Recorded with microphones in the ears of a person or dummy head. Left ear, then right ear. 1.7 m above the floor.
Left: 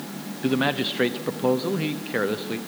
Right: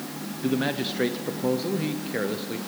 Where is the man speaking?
25° left (ahead or behind), 0.8 m.